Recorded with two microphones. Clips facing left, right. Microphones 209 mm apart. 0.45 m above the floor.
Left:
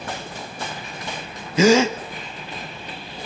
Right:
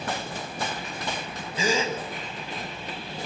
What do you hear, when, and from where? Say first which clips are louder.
1.6 s a gasp: left 11 dB; 75° left (ahead or behind), 0.9 m